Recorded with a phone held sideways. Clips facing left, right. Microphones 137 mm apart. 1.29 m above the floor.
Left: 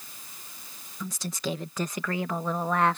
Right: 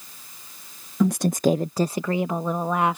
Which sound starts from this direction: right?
A woman speaking, at 1.0 s.